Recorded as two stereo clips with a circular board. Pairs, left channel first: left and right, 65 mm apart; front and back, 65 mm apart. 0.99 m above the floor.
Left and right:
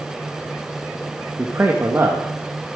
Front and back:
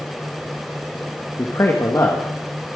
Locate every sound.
1.4 s a man speaking: 40° right, 1.6 m